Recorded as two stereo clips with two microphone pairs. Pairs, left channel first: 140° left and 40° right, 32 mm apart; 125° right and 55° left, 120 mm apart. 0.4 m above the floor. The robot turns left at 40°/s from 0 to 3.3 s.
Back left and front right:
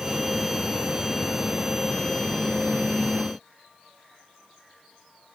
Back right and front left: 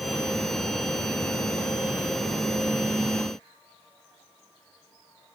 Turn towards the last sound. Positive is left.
No sound to turn to.